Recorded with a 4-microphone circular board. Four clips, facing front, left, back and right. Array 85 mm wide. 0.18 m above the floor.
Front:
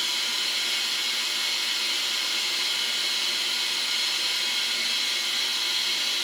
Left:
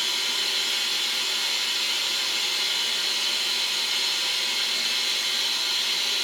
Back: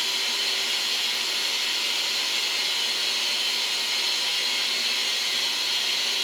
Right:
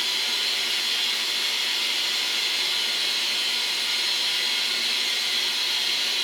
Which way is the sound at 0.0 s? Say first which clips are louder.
Even, back 1 dB; 150° right.